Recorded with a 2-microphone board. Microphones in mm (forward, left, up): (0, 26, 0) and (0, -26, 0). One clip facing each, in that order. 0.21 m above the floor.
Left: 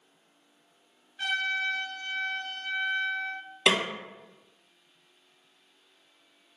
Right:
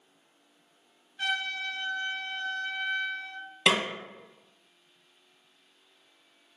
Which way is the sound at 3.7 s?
10° right (ahead or behind).